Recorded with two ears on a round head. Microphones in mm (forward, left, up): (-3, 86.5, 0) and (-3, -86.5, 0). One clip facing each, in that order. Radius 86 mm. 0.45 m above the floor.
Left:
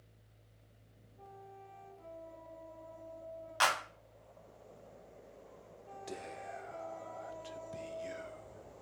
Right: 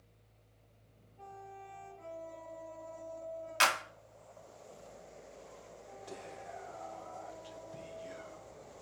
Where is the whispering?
25° left (ahead or behind), 0.9 m.